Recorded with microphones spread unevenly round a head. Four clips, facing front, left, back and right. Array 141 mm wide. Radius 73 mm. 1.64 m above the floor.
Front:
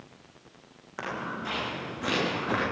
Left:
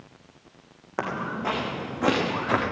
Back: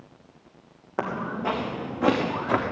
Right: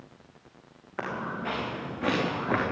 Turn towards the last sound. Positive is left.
turn(degrees=155)